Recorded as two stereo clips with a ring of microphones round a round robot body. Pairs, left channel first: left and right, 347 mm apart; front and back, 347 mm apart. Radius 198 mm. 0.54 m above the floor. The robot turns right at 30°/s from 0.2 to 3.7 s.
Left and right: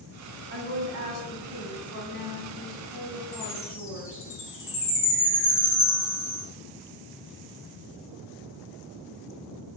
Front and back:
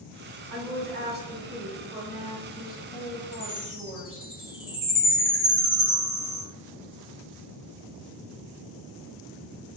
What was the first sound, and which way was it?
A woman speaking, 145° right.